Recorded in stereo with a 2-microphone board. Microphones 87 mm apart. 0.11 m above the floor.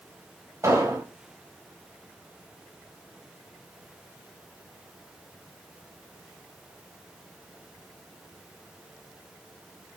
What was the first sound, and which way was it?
An explosion, 35° right (ahead or behind).